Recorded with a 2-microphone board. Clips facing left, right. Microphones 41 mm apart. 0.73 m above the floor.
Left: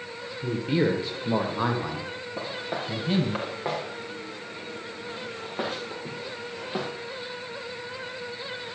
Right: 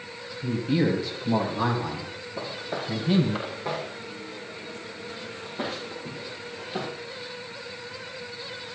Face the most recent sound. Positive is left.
turn(degrees=60)  # may be behind; listen again after turning